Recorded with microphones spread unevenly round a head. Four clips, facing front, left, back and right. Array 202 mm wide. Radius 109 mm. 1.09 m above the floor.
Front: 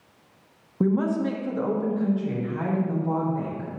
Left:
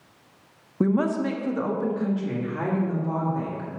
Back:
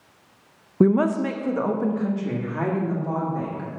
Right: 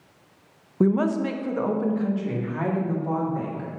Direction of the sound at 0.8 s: 175° left.